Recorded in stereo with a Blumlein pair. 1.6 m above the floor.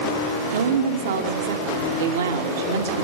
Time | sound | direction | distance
0.5 | a woman speaking | 60° right | 3 m